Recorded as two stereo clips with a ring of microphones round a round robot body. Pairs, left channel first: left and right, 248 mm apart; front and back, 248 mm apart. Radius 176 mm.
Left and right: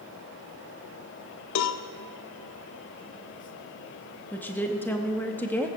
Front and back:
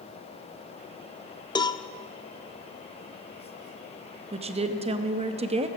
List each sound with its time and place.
1.6 s a cowbell: 75° left, 0.8 m
4.3 s a woman speaking: 165° left, 0.8 m